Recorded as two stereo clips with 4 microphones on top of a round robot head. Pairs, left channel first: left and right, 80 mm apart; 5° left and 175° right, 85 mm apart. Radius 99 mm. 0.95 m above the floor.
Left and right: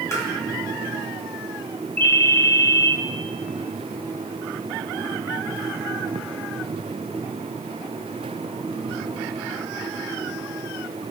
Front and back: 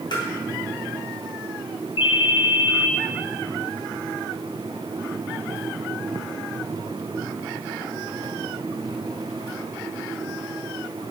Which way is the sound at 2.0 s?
20° left.